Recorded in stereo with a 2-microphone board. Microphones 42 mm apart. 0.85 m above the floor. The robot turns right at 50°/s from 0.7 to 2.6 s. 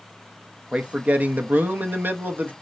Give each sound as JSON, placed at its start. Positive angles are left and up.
{"t": 0.7, "sound": "a man speaking", "azimuth_deg": -150, "distance_m": 0.6}